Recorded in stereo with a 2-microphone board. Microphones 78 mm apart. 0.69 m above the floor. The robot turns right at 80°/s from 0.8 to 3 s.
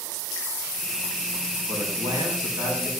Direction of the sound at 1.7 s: 135° right.